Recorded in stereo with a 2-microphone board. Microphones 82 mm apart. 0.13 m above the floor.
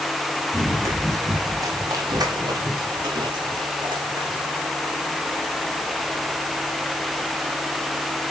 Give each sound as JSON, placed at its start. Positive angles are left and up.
{"t": 0.5, "sound": "running footsteps", "side_deg": -35, "distance_m": 5.5}